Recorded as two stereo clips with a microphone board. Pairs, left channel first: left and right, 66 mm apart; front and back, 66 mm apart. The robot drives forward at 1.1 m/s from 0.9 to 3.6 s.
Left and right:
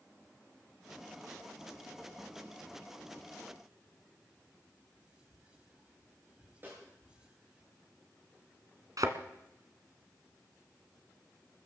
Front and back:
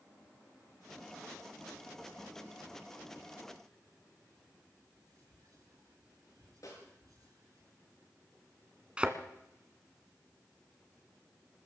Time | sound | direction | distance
4.9 | whispering | 165° right | 9 m
6.6 | a snare drum | 30° right | 8 m
9.0 | a thud | 110° right | 1.5 m